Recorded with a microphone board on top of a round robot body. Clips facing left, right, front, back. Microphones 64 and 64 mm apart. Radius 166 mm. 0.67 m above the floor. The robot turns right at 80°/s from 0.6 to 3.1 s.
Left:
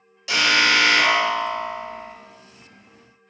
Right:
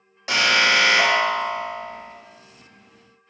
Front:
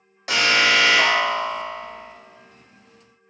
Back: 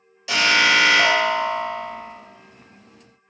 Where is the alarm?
45° right, 1.1 m; by 2.2 s 80° left, 1.1 m.